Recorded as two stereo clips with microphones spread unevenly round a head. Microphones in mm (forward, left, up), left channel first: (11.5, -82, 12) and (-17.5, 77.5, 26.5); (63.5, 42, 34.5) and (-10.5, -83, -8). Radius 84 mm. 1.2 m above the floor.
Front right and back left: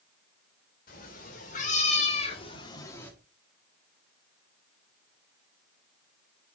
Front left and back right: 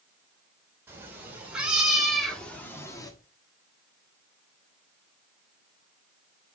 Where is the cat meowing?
45° right, 3 m; by 3.1 s straight ahead, 1.4 m.